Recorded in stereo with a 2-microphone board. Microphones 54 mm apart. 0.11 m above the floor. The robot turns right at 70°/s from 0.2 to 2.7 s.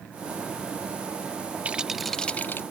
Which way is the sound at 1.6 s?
25° right.